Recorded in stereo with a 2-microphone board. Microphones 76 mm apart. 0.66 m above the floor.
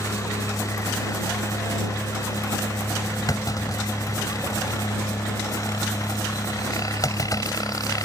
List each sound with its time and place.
0.0 s a helicopter: 45° left (ahead or behind); by 8.1 s 50° left (ahead or behind)
3.3 s a clunk: 50° left (ahead or behind)